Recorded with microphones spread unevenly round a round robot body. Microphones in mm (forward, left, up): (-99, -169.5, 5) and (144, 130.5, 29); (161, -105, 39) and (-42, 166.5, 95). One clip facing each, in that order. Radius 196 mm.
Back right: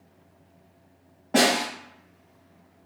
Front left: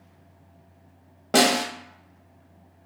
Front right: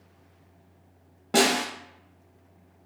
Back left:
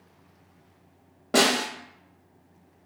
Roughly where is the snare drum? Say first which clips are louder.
Front left 1 dB, even; ahead left.